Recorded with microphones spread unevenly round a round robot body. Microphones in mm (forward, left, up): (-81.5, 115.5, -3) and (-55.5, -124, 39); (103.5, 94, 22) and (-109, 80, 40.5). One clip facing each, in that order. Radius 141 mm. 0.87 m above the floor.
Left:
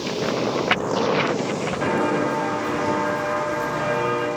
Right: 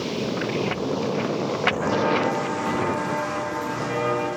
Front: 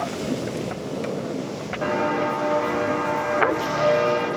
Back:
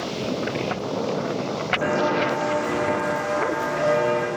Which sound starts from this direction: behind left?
Footsteps, at 1.8 s.